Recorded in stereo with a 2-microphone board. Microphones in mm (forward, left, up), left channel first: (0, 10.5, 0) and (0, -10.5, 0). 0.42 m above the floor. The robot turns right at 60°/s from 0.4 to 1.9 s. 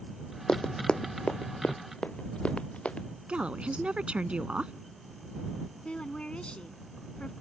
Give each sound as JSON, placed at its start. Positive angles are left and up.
{"t": 0.5, "sound": "running footsteps", "side_deg": 45}
{"t": 3.3, "sound": "a woman speaking", "side_deg": -65}
{"t": 5.8, "sound": "a woman speaking", "side_deg": 65}